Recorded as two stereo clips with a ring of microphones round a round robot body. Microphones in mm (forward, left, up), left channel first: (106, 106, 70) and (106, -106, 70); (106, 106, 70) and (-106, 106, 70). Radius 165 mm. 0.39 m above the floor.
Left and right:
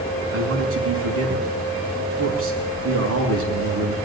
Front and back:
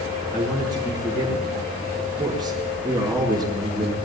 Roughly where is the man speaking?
Right.